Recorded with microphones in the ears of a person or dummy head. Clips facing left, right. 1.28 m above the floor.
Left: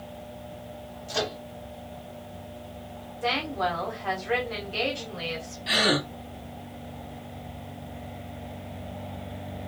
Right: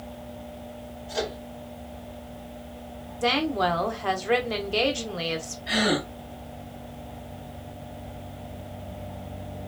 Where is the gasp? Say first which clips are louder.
Right 1 dB; 55° left (ahead or behind), 2.0 m.